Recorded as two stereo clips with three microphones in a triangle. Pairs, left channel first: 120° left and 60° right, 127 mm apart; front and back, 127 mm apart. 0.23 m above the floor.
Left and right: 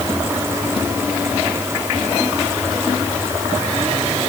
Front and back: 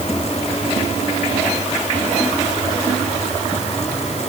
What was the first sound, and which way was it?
Only background noise.